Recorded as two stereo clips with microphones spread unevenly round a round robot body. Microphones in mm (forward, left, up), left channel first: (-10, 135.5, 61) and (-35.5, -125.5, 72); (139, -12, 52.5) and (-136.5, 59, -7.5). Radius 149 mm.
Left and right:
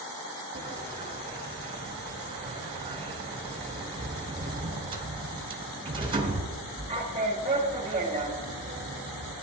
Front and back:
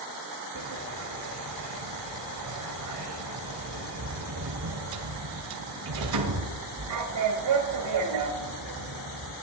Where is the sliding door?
165° right, 1.6 m.